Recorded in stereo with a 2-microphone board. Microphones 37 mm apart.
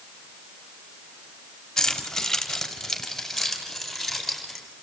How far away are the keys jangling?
About 4 m.